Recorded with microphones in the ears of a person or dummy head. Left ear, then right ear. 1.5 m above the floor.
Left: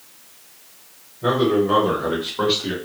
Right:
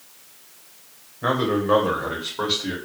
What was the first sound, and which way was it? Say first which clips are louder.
A man speaking: left 3 dB; 40° right (ahead or behind).